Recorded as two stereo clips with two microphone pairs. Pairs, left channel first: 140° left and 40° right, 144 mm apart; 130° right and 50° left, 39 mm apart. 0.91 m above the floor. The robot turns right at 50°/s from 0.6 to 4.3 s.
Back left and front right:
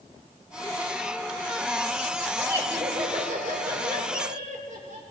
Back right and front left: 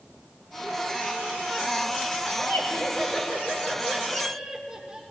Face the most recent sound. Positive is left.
turn(degrees=-25)